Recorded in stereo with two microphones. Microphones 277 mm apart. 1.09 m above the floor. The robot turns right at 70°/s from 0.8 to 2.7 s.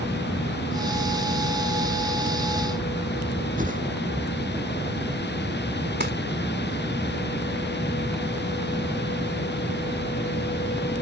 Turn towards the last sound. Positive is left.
turn(degrees=-40)  # may be behind; listen again after turning